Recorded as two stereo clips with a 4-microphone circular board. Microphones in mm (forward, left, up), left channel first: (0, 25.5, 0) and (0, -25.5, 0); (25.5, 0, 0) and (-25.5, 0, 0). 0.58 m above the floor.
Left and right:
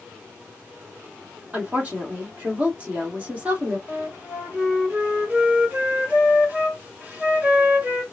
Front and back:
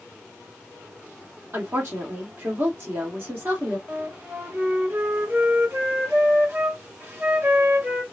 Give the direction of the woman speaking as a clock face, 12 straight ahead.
5 o'clock.